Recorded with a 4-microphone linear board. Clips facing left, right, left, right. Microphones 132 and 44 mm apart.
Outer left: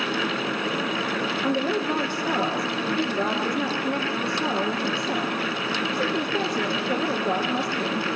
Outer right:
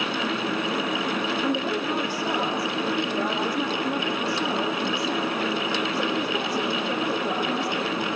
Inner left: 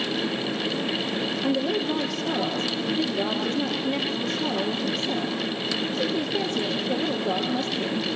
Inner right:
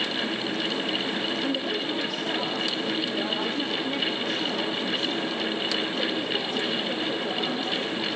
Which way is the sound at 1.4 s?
20° right (ahead or behind).